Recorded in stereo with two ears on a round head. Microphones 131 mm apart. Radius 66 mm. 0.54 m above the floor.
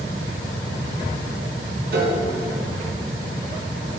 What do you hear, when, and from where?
1.9 s a piano: 80° right, 1.5 m